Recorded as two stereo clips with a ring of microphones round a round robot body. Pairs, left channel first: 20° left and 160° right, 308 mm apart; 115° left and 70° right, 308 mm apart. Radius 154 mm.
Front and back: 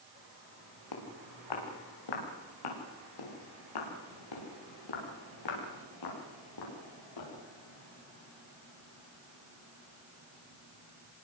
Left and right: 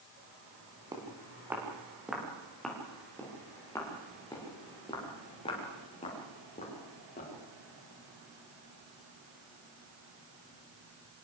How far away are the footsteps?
About 7 m.